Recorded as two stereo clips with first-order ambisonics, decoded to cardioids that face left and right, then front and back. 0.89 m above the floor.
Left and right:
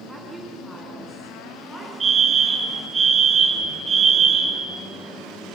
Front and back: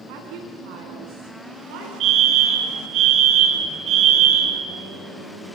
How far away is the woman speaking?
About 8 m.